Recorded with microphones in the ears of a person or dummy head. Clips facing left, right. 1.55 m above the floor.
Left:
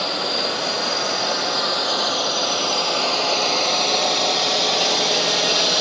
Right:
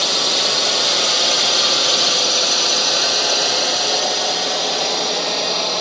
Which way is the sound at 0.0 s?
60° right (ahead or behind).